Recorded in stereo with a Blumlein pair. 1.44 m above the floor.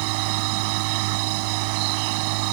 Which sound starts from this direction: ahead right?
A machine running, at 0.0 s.